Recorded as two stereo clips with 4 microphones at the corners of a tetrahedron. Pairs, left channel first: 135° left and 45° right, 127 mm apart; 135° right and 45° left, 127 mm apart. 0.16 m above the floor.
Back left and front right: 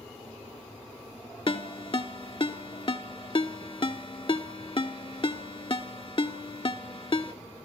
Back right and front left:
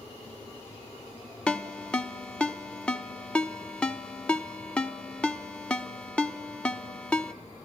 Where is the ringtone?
145° left, 0.7 m.